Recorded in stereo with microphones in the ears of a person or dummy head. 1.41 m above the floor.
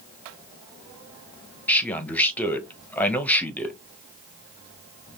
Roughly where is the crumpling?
No crumpling in this recording.